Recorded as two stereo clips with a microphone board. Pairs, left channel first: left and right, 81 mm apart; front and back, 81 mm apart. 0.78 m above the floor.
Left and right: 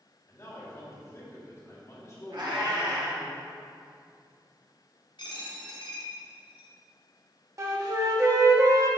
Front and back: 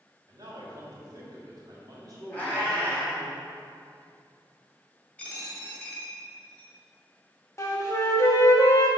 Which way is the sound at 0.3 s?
140° left.